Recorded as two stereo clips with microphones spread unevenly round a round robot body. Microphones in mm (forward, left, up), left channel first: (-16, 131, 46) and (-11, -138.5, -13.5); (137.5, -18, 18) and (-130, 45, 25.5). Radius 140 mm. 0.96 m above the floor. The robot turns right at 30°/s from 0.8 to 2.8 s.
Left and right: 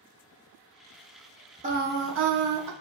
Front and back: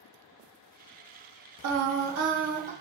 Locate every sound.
1.6 s singing: 155° right, 0.5 m; by 2.7 s 125° right, 0.5 m